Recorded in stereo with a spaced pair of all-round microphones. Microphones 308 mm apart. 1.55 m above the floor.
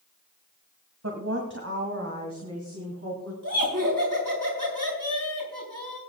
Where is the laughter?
75° right (ahead or behind), 6 m.